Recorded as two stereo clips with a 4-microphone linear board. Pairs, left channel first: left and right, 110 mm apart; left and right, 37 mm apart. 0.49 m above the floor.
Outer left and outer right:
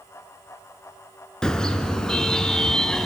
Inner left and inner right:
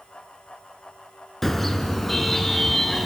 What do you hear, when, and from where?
1.4 s a car horn: 5° left (ahead or behind), 2.5 m